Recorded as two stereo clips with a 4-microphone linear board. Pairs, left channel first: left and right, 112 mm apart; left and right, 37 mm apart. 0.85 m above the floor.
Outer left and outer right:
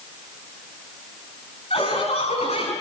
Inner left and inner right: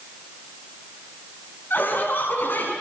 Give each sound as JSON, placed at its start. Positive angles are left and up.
{"t": 1.7, "sound": "laughter", "side_deg": 65, "distance_m": 6.5}